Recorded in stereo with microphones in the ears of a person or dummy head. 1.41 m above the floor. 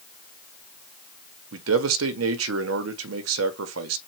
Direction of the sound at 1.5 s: 80° right.